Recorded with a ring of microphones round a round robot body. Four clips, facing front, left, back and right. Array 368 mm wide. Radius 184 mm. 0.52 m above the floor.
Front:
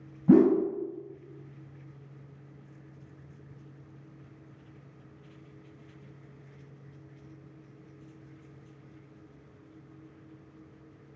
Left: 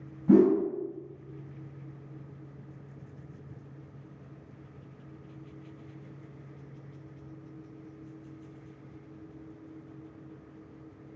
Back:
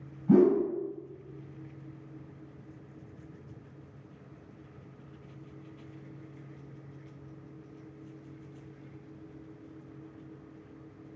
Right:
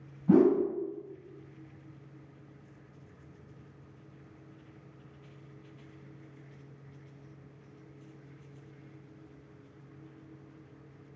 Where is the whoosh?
15° left, 0.7 m.